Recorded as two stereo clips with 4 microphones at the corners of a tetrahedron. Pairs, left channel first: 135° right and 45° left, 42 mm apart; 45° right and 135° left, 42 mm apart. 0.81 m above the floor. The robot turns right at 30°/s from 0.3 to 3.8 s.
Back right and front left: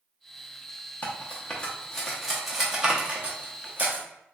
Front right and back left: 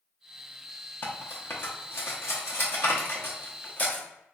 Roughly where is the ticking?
No ticking in this recording.